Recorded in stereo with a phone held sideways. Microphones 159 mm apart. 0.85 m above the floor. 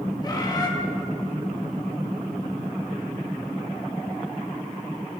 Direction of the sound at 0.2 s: 25° left (ahead or behind).